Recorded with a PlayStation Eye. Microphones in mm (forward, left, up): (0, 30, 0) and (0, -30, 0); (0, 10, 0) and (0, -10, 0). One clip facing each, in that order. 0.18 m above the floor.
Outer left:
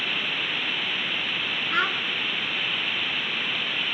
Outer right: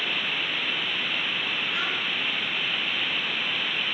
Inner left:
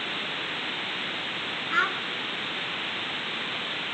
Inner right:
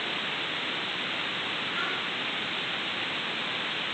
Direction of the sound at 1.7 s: 50° left (ahead or behind).